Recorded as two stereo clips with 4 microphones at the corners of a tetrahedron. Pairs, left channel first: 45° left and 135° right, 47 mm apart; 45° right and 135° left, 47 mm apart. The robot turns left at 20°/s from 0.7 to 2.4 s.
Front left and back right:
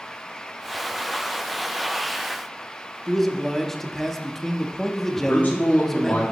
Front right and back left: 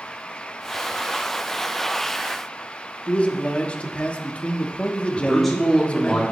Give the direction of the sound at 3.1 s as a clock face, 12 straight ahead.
1 o'clock.